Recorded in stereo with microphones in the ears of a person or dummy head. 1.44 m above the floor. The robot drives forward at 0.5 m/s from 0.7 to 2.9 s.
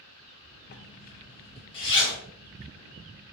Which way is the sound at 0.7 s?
55° left (ahead or behind).